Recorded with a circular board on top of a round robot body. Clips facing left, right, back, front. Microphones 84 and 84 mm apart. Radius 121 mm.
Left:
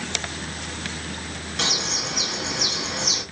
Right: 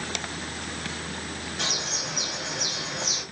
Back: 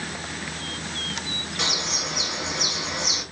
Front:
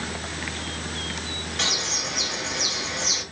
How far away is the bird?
About 1.8 m.